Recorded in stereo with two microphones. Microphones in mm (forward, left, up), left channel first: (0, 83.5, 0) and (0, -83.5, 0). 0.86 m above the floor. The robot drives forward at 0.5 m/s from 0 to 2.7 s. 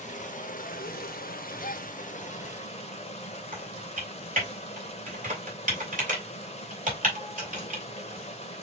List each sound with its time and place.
0.0 s running water: 45° left (ahead or behind), 1.0 m; by 8.6 s 40° left (ahead or behind), 1.1 m
1.6 s a gasp: 60° left (ahead or behind), 0.7 m; by 1.9 s 55° left (ahead or behind), 0.7 m
3.5 s typing on a keyboard: 50° right (ahead or behind), 2.5 m